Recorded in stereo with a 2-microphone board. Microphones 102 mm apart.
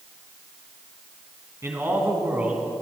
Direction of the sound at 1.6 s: 25° right (ahead or behind).